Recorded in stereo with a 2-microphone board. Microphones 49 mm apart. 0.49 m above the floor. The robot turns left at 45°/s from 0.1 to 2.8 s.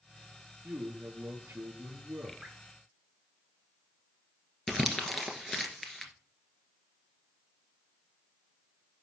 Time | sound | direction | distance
0.6 | a man speaking | 55° right | 5 m
2.4 | dripping | 20° right (ahead or behind) | 3 m
4.7 | crumpling | centre (ahead or behind) | 1.8 m